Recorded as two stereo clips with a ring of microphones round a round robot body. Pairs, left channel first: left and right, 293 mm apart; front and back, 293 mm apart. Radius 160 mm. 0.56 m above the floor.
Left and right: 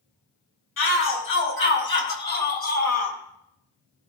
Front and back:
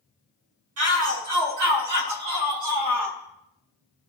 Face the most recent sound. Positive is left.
turn(degrees=155)